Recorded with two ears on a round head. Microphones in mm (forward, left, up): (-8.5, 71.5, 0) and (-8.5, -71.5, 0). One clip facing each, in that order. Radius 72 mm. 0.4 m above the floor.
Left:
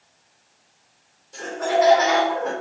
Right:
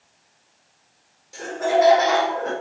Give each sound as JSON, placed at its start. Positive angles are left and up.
{"t": 1.3, "sound": "laughter", "side_deg": -10, "distance_m": 0.8}